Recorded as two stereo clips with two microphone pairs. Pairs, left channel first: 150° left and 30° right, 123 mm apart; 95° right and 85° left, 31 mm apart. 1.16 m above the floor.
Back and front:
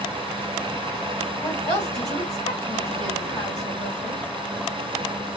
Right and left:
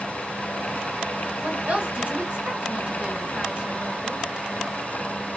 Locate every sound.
1.4 s a woman speaking: 115° left, 2.5 m